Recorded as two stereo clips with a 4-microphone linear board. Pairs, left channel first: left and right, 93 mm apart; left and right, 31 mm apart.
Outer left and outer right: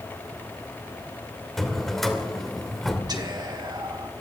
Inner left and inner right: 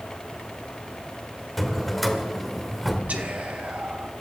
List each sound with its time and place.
1.6 s a drawer: centre (ahead or behind), 2.5 m
3.1 s whispering: 45° right (ahead or behind), 2.5 m